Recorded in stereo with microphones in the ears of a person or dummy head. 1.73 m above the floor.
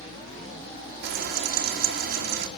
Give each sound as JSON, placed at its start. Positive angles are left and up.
{"t": 1.0, "sound": "frying", "side_deg": -50, "distance_m": 2.5}